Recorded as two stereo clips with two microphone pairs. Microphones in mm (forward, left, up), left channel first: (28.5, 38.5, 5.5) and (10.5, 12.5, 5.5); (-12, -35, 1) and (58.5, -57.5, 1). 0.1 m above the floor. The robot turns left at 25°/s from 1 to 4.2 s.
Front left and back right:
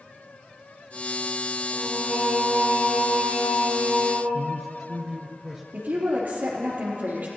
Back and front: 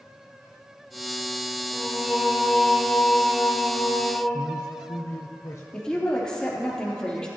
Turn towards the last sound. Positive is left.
turn(degrees=-115)